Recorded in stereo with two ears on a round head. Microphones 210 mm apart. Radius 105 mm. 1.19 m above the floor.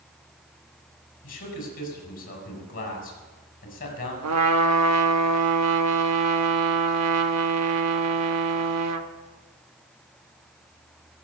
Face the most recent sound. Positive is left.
turn(degrees=-75)  # may be behind; listen again after turning